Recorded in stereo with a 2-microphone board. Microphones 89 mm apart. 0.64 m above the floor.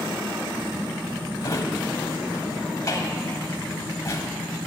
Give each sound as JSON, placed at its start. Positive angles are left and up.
{"t": 1.4, "sound": "a drawer", "side_deg": 40, "distance_m": 0.9}